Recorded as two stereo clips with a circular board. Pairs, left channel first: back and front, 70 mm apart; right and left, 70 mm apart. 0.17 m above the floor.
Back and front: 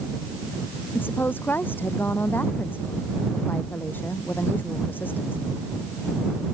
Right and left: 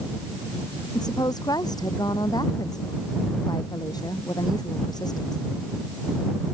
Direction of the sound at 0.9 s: 115° right.